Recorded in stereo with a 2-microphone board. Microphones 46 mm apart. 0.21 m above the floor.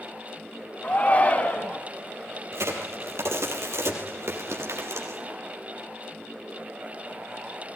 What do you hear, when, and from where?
0.8 s a shout: 30° left (ahead or behind), 1.8 m
2.5 s a crack: 80° right, 4 m